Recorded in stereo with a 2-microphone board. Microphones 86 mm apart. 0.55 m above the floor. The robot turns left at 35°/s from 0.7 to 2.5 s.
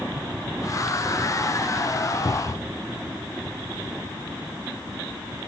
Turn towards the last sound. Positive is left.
turn(degrees=50)  # may be behind; listen again after turning